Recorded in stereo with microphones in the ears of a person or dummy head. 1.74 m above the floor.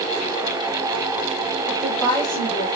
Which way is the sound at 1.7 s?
15° right (ahead or behind).